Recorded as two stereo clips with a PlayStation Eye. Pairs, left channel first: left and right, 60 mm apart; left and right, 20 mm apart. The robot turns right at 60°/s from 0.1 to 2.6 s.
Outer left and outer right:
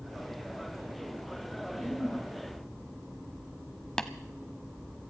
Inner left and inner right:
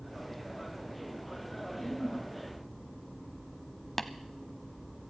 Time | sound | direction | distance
1.6 | a giggle | 100° left | 8 m
4.0 | tapping | 15° left (ahead or behind) | 0.8 m